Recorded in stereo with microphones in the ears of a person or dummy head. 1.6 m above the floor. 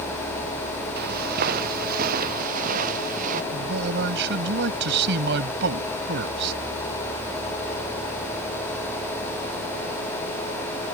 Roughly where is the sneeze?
No sneeze in this recording.